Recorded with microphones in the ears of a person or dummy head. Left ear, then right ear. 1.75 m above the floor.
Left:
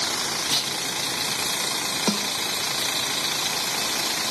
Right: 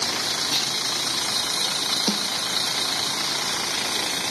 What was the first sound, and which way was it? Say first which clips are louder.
A clunk: left 1 dB; 55° left (ahead or behind).